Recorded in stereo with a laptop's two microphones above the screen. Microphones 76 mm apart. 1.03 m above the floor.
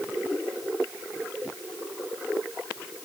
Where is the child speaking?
No child speaking in this recording.